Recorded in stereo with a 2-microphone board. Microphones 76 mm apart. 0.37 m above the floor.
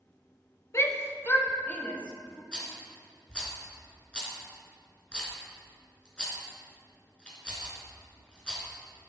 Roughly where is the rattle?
Centre.